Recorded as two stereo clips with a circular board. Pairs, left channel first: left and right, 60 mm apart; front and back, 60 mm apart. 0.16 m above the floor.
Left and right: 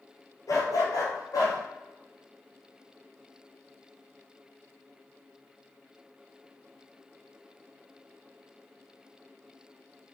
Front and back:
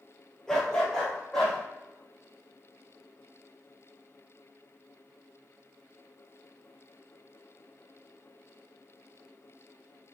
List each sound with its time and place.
0.5 s a dog barking: 80° left, 1.5 m; by 1.6 s 75° left, 2.5 m